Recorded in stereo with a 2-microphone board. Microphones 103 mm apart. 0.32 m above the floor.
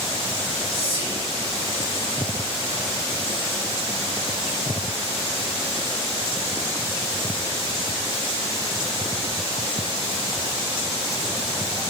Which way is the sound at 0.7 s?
60° left (ahead or behind).